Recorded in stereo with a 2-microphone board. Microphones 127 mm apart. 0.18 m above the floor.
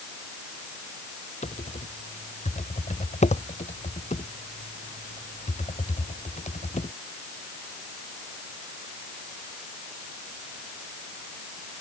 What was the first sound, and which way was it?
Typing on a keyboard, 65° left (ahead or behind).